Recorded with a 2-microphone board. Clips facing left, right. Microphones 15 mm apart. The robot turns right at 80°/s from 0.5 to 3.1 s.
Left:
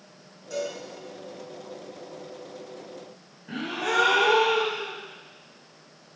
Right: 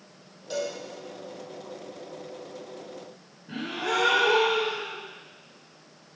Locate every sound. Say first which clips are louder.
0.5 s a cowbell: even; 65° right (ahead or behind), 4 m
3.5 s a gasp: left 1 dB; 65° left (ahead or behind), 3 m